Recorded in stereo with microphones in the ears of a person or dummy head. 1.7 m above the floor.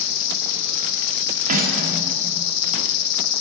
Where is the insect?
75° left (ahead or behind), 1.4 m.